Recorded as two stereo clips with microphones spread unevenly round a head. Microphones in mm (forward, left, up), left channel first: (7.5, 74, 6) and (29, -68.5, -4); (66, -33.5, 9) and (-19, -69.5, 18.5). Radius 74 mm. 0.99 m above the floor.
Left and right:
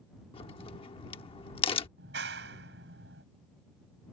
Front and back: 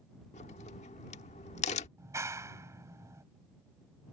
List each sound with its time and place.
0.3 s a crack: 45° left
2.0 s a clap: 100° right